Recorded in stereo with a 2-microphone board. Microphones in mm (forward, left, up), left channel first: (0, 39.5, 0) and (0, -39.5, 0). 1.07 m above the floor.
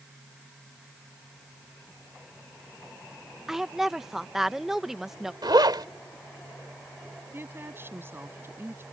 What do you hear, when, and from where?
3.5 s a woman speaking: 5° right (ahead or behind)
5.4 s a zipper: 70° right (ahead or behind)
7.3 s a woman speaking: 30° right (ahead or behind)